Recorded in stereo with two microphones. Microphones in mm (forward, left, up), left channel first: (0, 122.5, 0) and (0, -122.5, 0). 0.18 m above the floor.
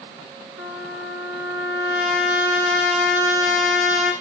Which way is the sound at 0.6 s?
55° left (ahead or behind).